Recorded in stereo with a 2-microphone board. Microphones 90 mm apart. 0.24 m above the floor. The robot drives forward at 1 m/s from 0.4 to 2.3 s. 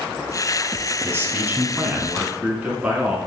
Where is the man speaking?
30° right (ahead or behind), 1.2 m; by 3.2 s 15° right (ahead or behind), 2 m.